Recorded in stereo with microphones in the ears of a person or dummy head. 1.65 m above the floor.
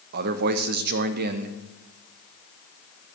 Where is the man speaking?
60° right (ahead or behind), 0.7 m.